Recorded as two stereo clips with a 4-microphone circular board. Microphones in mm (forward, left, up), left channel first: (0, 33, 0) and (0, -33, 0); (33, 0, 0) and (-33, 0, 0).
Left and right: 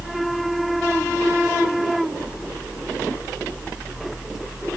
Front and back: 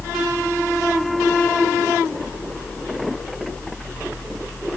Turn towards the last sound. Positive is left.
No sound to turn to.